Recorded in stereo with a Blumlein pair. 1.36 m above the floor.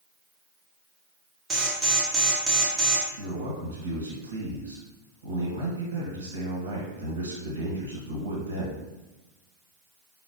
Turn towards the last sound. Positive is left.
turn(degrees=-65)